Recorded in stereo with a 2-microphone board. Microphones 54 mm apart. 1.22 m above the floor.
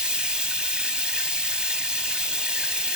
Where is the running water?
15° right (ahead or behind), 1.2 m.